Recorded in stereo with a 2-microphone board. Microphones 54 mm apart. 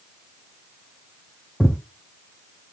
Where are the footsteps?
5° left (ahead or behind), 0.7 m.